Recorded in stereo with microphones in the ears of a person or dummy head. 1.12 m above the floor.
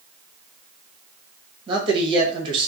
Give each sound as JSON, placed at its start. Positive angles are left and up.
{"t": 1.7, "sound": "a man speaking", "side_deg": -30, "distance_m": 1.3}